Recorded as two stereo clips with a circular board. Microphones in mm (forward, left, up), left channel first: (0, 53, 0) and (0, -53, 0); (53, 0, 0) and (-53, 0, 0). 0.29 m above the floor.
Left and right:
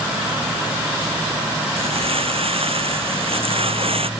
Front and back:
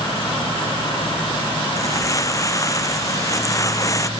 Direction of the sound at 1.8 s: 60° right.